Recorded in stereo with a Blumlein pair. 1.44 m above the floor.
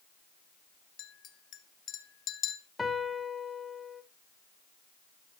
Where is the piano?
10° left, 0.8 m.